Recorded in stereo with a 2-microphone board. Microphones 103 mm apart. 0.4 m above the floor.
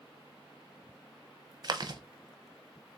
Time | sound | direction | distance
1.6 | chewing | 45° right (ahead or behind) | 0.6 m